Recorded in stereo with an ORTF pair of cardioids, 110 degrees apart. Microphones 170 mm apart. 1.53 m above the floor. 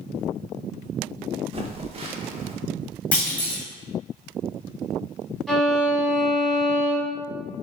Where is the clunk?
10° left, 1.1 m.